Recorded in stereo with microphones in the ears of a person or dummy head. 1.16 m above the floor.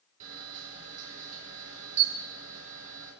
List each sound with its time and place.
0.2 s a camera shutter: 40° right (ahead or behind), 4.5 m